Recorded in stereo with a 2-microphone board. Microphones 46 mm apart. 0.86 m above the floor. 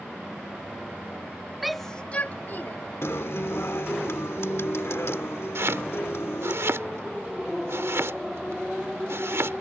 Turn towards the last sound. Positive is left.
turn(degrees=-65)  # may be behind; listen again after turning